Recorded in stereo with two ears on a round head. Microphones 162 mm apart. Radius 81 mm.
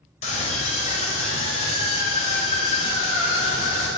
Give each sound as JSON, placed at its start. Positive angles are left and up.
{"t": 0.2, "sound": "a scream", "side_deg": 40, "distance_m": 4.0}